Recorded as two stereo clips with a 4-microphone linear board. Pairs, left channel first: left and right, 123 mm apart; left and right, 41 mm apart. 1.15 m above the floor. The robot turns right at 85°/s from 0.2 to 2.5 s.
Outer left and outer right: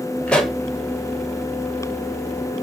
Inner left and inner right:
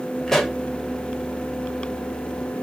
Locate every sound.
0.3 s a pop: 10° left (ahead or behind), 0.6 m; by 0.6 s 10° right (ahead or behind), 0.6 m